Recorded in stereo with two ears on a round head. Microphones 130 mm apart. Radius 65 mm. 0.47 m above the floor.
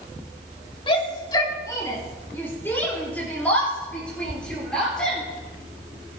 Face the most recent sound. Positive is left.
turn(degrees=5)  # may be behind; listen again after turning